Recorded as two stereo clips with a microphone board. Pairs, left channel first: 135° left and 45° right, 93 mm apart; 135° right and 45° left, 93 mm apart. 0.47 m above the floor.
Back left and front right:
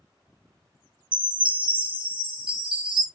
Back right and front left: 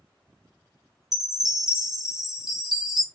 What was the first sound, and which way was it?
A chime, 40° right.